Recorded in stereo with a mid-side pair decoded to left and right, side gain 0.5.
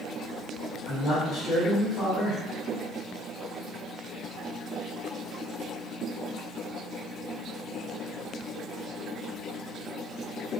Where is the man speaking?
45° left, 1.4 m.